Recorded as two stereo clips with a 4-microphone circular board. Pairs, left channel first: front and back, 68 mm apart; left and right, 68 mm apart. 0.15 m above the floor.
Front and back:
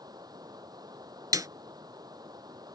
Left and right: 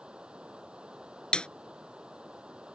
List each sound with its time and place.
0.0 s running water: 165° right
1.3 s a snare drum: 165° left